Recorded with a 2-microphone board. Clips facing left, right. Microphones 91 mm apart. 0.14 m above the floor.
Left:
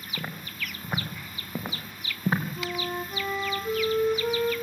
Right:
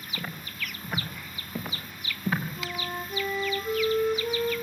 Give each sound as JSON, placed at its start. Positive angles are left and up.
{"t": 0.2, "sound": "footsteps", "side_deg": 20, "distance_m": 5.5}
{"t": 2.6, "sound": "a flute", "side_deg": 25, "distance_m": 4.5}